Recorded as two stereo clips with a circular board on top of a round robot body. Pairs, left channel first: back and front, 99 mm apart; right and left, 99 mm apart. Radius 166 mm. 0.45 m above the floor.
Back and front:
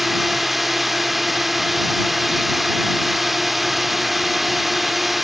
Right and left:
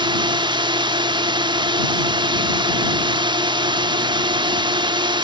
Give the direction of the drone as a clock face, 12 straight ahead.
9 o'clock.